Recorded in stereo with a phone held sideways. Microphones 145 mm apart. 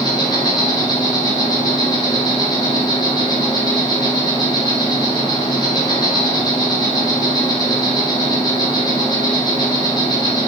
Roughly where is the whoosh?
No whoosh in this recording.